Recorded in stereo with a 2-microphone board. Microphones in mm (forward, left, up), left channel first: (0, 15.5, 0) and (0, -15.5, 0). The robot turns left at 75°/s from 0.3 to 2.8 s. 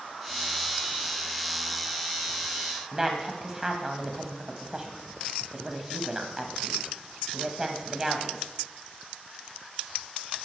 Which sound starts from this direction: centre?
A woman speaking, at 2.9 s.